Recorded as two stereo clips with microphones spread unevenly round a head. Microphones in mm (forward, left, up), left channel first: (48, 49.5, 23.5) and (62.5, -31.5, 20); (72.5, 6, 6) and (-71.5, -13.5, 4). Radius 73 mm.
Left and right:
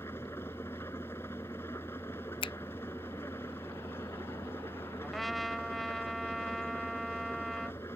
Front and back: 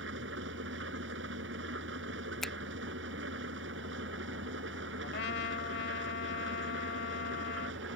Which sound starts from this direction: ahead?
A trumpet, at 5.0 s.